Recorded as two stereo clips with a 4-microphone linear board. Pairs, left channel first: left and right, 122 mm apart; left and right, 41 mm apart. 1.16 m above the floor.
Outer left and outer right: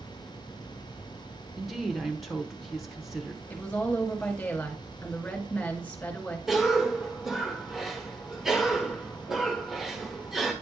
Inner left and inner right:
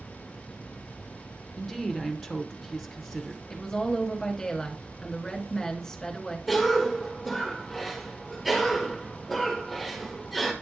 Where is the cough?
5° right (ahead or behind), 1.4 m.